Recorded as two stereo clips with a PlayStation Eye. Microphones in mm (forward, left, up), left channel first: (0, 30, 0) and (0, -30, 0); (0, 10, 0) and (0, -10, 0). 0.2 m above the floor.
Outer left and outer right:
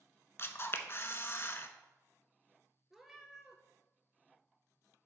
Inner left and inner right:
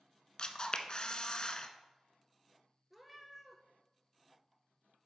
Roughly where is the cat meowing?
Centre.